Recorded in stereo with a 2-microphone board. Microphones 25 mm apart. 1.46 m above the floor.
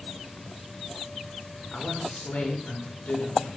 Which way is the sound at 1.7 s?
70° left (ahead or behind).